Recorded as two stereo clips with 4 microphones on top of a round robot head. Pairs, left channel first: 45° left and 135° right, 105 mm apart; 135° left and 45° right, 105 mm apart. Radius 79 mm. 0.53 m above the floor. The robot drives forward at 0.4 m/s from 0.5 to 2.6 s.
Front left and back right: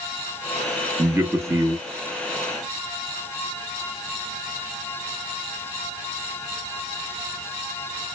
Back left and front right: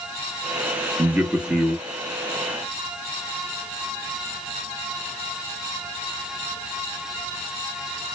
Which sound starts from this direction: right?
A man speaking, at 1.0 s.